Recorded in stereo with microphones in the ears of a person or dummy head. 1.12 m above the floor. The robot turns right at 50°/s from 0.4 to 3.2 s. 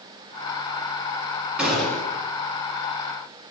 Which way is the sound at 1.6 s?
5° right (ahead or behind).